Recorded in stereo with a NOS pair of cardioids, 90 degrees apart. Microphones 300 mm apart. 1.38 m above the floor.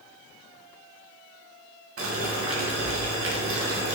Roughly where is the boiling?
Ahead right.